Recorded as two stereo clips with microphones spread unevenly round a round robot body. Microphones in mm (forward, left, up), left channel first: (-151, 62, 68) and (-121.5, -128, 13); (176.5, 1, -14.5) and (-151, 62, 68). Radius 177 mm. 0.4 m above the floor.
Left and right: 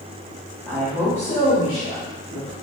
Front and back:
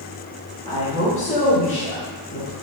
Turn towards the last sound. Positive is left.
turn(degrees=40)